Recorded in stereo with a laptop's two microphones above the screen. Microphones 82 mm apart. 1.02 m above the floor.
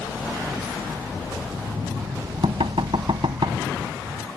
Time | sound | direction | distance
1.5 | knocking | 90° right | ?